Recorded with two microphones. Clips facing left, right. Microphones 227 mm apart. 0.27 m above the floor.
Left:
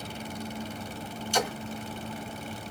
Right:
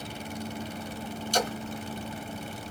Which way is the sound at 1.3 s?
40° right (ahead or behind).